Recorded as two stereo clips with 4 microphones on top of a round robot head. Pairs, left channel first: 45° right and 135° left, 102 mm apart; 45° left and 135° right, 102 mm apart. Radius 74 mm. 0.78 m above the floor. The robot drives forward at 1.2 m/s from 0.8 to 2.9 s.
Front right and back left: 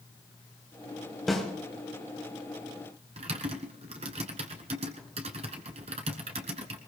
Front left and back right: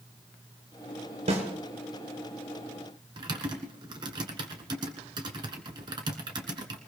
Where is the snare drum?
130° right, 4 m; by 1.4 s 135° right, 4 m.